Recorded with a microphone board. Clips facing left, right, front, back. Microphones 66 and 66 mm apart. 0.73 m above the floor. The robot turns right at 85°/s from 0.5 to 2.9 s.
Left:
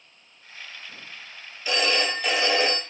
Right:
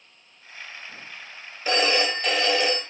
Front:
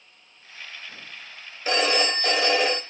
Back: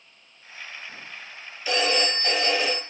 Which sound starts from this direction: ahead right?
A phone ringing, at 1.6 s.